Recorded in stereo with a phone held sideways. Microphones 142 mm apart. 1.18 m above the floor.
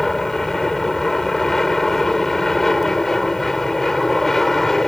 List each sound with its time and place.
0.0 s an aircraft: centre (ahead or behind)